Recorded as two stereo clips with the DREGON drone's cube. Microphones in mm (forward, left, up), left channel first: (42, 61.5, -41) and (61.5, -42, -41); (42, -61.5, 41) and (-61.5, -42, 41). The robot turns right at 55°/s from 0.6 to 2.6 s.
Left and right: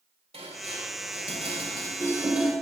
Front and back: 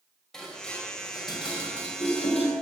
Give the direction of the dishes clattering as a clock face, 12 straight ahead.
3 o'clock.